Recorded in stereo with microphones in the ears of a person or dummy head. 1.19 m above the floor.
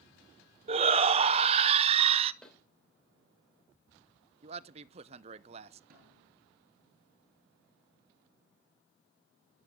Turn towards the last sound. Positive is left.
turn(degrees=-50)  # may be behind; listen again after turning